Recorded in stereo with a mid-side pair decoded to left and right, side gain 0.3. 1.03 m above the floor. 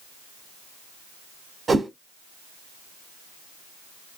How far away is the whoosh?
About 1.8 m.